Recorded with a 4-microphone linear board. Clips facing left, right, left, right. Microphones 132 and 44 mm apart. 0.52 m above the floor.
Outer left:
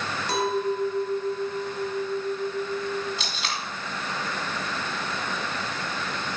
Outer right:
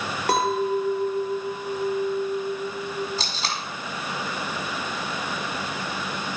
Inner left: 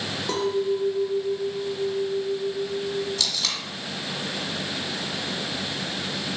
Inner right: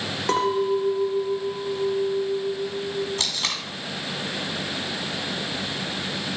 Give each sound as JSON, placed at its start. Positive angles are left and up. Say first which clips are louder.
{"t": 0.3, "sound": "a clink", "louder": "outer right 3 dB, inner right 3 dB", "side_deg": -60, "distance_m": 1.4}
{"t": 3.2, "sound": "tape being pulled", "louder": "outer right 2 dB, inner right 1 dB", "side_deg": -35, "distance_m": 1.5}